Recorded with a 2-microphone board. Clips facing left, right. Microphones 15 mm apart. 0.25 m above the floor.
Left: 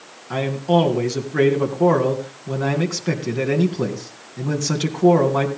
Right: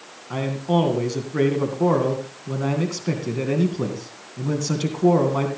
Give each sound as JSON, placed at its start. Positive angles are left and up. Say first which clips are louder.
{"t": 0.3, "sound": "a man speaking", "louder": "left 4 dB", "side_deg": 15, "distance_m": 2.5}